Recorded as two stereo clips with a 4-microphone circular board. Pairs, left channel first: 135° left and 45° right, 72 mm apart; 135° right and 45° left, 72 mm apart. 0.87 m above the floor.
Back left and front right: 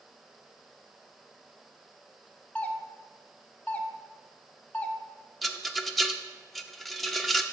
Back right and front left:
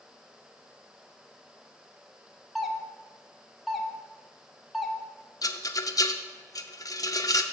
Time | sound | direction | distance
2.5 | a doorbell | 135° left | 0.8 m
5.4 | a rattle | 140° right | 0.6 m